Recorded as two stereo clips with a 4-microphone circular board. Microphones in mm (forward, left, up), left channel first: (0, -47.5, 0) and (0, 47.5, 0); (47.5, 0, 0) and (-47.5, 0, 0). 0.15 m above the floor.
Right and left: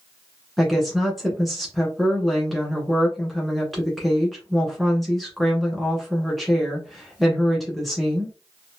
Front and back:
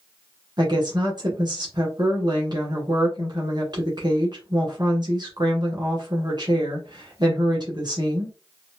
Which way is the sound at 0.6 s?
Straight behind.